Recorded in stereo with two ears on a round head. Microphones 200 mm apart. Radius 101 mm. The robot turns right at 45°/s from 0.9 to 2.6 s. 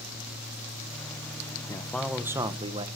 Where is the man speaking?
165° left, 1.4 m; by 2.9 s 155° right, 1.4 m.